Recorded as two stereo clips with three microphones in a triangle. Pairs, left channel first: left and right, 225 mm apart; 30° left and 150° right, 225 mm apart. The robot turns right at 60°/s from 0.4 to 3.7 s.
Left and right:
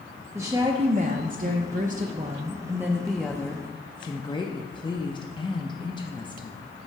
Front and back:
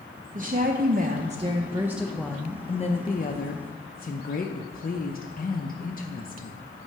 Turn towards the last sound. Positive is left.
turn(degrees=35)